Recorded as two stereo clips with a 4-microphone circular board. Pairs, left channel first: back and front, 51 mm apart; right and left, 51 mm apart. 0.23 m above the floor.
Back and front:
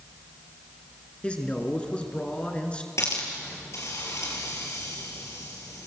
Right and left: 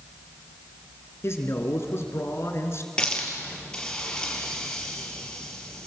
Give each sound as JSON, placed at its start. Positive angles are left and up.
{"t": 1.2, "sound": "a man speaking", "azimuth_deg": -115, "distance_m": 3.0}
{"t": 3.0, "sound": "a hiss", "azimuth_deg": -165, "distance_m": 4.5}